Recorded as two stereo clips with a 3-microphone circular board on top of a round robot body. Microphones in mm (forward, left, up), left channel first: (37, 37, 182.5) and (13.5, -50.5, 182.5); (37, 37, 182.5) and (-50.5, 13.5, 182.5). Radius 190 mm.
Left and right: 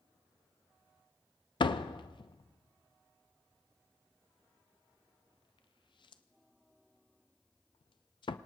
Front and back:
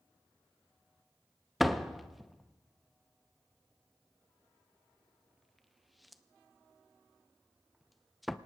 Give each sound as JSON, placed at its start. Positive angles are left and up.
{"t": 1.6, "sound": "a door slam", "azimuth_deg": 105, "distance_m": 0.6}